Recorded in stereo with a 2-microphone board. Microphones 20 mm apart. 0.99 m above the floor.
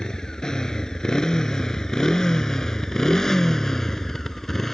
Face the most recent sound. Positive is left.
turn(degrees=15)  # may be behind; listen again after turning